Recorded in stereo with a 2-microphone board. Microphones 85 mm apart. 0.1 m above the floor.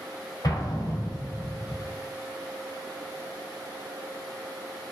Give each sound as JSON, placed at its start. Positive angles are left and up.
{"t": 0.4, "sound": "an explosion", "side_deg": 50, "distance_m": 1.1}